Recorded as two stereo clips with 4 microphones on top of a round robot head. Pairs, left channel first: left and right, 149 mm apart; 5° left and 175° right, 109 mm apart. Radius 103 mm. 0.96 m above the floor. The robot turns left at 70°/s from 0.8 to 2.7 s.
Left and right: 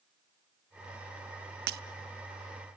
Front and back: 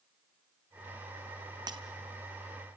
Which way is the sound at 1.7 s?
105° right.